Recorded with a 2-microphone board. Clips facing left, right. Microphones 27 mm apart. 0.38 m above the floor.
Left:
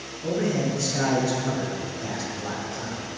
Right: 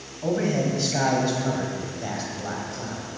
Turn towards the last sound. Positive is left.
turn(degrees=-10)  # may be behind; listen again after turning